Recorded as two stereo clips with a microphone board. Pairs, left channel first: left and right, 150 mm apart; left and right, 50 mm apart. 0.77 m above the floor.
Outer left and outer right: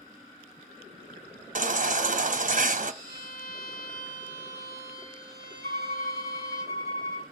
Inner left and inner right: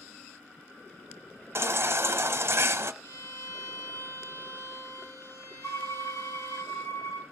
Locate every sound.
1.6 s a baby crying: 55° right (ahead or behind), 0.7 m
3.0 s a violin: 85° left, 9.5 m
5.6 s a violin: 85° left, 6 m